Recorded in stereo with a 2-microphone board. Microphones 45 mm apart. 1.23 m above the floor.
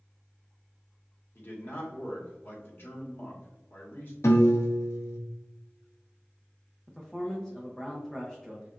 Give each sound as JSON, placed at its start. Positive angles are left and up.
{"t": 1.4, "sound": "a man speaking", "side_deg": 50, "distance_m": 1.5}
{"t": 4.2, "sound": "a piano", "side_deg": 75, "distance_m": 0.7}
{"t": 6.9, "sound": "a man speaking", "side_deg": 5, "distance_m": 0.7}